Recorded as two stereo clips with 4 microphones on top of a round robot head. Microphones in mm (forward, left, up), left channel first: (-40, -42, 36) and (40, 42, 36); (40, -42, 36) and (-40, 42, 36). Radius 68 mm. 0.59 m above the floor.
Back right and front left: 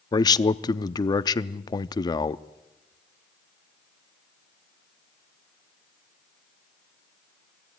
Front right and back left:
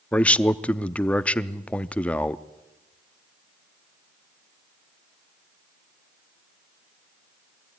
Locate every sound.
0.1 s a man speaking: 120° right, 0.7 m